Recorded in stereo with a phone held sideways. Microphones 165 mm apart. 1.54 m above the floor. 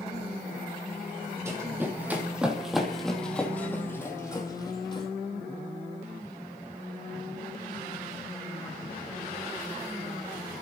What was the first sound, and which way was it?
Running footsteps, 20° right (ahead or behind).